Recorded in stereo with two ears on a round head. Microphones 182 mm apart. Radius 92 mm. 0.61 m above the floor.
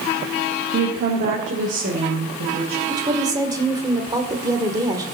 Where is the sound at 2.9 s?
20° right (ahead or behind), 1.9 m.